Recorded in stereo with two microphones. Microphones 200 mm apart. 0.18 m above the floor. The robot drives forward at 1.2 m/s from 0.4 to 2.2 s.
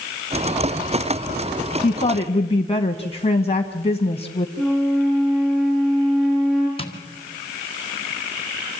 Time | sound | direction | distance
1.8 | a woman speaking | 30° left (ahead or behind) | 1.1 m
4.6 | a flute | centre (ahead or behind) | 4.5 m
6.8 | tapping | 30° left (ahead or behind) | 1.9 m